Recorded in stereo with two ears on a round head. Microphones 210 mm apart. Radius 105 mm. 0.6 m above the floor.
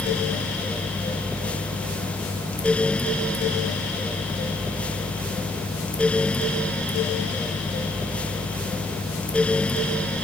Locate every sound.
Only background noise.